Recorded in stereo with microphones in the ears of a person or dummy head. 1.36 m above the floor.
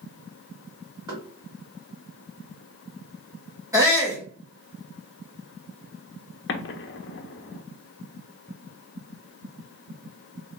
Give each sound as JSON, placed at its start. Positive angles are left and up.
{"t": 1.1, "sound": "knocking", "side_deg": -20, "distance_m": 1.7}
{"t": 3.7, "sound": "a shout", "side_deg": -10, "distance_m": 1.0}
{"t": 6.5, "sound": "an explosion", "side_deg": 60, "distance_m": 0.6}